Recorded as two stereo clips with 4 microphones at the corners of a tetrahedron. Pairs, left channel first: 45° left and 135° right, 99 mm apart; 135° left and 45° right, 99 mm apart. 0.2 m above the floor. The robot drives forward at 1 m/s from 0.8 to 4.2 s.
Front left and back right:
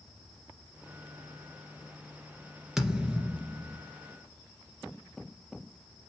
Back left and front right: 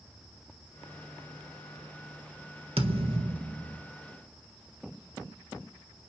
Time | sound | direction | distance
2.8 | a thud | 50° right | 2 m